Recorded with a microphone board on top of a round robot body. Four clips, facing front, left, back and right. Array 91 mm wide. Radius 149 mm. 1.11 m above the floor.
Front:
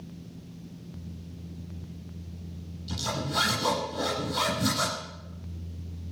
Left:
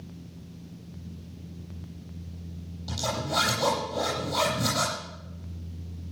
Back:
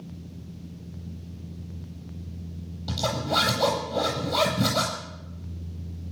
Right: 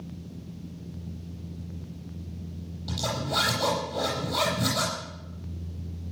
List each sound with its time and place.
2.9 s a zipper: 175° left, 9.5 m